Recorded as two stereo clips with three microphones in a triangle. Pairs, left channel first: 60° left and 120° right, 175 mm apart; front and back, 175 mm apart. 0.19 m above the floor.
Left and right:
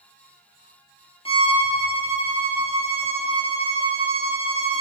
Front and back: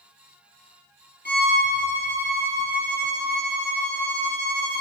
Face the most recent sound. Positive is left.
turn(degrees=5)